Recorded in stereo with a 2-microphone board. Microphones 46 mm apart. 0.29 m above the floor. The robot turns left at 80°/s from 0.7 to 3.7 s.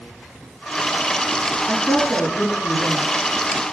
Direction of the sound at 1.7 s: 170° right.